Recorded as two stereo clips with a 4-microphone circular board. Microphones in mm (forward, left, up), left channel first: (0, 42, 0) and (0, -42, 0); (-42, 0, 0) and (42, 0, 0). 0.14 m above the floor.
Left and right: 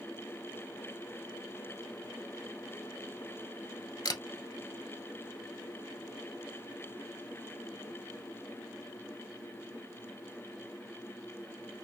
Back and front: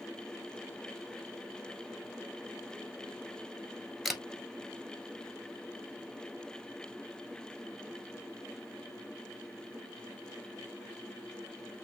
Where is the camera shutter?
85° left, 0.8 m.